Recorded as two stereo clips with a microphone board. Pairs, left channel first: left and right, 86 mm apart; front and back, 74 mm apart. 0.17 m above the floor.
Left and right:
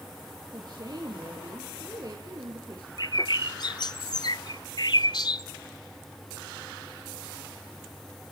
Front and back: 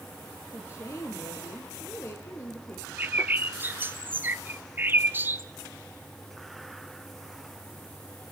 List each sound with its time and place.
0.5 s a woman speaking: 50° right, 3 m
3.0 s a bird: 120° left, 0.7 m